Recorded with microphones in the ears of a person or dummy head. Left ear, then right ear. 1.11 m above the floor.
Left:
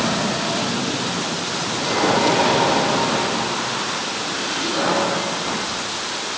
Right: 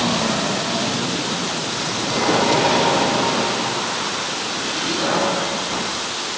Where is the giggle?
No giggle in this recording.